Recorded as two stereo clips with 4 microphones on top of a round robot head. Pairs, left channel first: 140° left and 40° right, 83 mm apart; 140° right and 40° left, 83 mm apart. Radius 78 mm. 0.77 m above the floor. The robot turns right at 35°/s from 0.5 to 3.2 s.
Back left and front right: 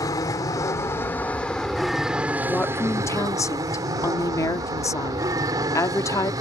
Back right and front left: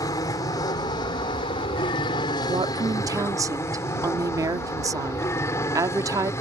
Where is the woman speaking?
65° left; by 6.3 s 90° left.